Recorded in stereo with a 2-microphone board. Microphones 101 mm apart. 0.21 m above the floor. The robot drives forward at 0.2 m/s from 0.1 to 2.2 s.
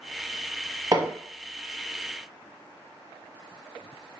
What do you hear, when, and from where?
0.9 s hammering: 40° right (ahead or behind), 0.8 m; by 1.1 s 35° right (ahead or behind), 0.8 m